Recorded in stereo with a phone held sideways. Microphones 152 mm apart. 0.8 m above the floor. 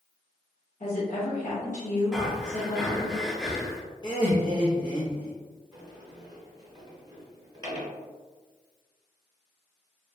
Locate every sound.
0.8 s a woman speaking: 55° left (ahead or behind), 1.3 m
2.1 s breathing: centre (ahead or behind), 0.6 m
4.0 s laughter: 30° left (ahead or behind), 0.7 m
5.7 s a sliding door: 30° right (ahead or behind), 1.1 m